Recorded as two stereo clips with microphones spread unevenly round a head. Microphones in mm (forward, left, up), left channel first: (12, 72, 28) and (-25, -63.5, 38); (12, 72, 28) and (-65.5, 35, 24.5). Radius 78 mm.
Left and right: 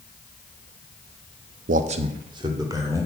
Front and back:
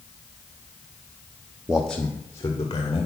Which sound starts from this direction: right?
A man speaking, at 1.7 s.